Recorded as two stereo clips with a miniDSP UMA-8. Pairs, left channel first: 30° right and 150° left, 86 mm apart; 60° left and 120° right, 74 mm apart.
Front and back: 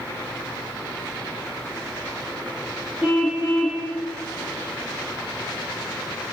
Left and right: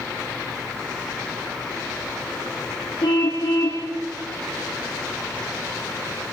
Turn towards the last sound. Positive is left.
turn(degrees=70)